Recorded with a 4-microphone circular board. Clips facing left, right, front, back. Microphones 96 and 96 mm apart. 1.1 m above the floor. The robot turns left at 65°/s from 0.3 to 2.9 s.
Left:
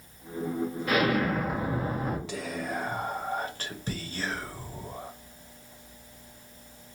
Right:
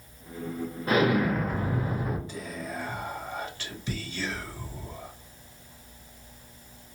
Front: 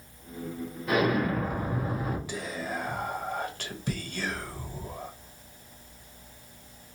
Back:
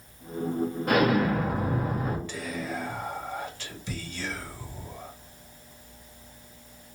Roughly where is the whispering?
Left.